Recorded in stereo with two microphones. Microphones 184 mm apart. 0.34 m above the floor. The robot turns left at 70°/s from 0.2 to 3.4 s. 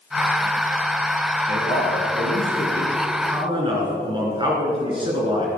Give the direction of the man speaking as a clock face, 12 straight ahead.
8 o'clock.